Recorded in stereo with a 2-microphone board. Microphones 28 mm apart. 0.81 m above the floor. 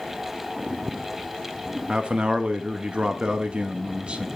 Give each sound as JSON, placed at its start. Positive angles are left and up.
{"t": 1.9, "sound": "a man speaking", "side_deg": -40, "distance_m": 1.1}